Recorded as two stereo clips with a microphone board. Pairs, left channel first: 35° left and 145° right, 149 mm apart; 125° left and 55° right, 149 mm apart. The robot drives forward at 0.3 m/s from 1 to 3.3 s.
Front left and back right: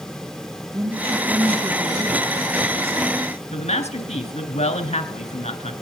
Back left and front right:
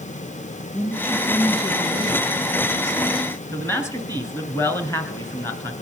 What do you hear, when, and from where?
0.7 s a woman speaking: 165° left, 3.5 m; by 3.2 s 170° left, 4.5 m
3.5 s a man speaking: 55° left, 2.0 m